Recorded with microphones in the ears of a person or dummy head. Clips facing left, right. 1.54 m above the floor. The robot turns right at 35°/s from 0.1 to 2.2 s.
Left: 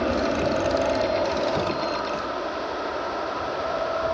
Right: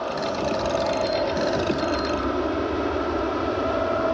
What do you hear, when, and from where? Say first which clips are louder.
0.0 s an aircraft: left 3 dB; 30° left (ahead or behind); by 4.1 s 45° right (ahead or behind)